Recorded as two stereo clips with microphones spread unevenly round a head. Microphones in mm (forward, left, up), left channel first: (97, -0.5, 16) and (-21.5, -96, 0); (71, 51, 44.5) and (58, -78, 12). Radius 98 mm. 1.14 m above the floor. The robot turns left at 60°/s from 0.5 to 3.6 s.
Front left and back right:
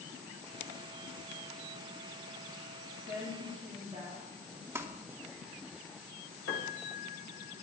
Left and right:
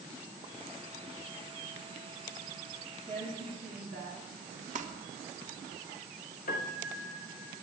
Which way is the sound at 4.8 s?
65° right.